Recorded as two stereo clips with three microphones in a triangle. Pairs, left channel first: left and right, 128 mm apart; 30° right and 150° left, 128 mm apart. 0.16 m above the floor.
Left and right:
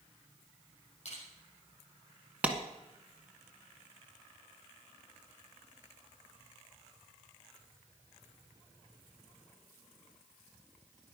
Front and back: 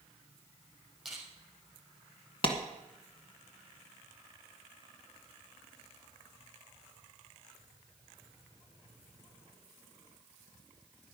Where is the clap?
15° right, 1.5 m.